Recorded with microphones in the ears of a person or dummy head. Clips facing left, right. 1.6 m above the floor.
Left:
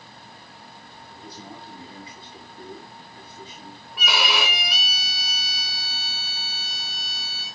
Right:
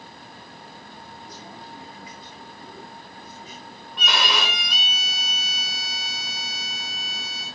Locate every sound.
1.1 s a man speaking: 30° left (ahead or behind), 5 m
4.0 s a violin: centre (ahead or behind), 3.5 m